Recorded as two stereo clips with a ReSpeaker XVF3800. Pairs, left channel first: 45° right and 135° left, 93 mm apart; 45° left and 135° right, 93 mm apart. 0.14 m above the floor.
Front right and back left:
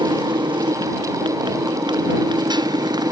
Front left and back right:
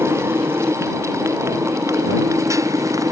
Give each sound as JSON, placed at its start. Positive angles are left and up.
{"t": 0.0, "sound": "a motorcycle", "azimuth_deg": 160}